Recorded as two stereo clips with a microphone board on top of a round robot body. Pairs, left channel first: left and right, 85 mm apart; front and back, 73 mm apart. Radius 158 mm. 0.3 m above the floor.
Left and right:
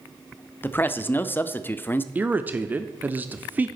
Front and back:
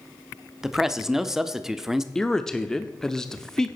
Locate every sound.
0.6 s a man speaking: 105° left, 0.9 m
2.1 s a man speaking: 70° right, 1.0 m